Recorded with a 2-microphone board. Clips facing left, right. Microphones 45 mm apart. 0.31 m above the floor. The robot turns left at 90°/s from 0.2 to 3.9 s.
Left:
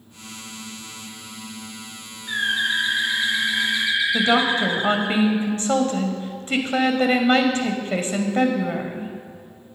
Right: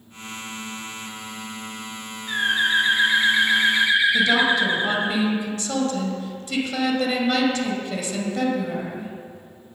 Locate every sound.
2.3 s a bird: 15° left, 1.4 m; by 5.1 s 130° right, 1.4 m
4.1 s a woman speaking: 40° left (ahead or behind), 1.9 m